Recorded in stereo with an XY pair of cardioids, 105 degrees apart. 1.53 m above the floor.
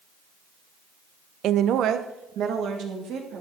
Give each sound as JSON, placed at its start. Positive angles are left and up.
{"t": 1.4, "sound": "a woman speaking", "azimuth_deg": -70, "distance_m": 0.6}